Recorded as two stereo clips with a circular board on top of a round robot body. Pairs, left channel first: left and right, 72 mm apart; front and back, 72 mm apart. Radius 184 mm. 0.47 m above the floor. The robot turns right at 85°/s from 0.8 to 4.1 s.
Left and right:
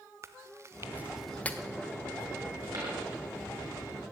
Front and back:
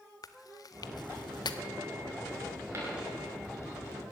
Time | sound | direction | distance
0.2 | chewing | 35° right | 0.6 m
2.7 | a dropped coin | 125° right | 5 m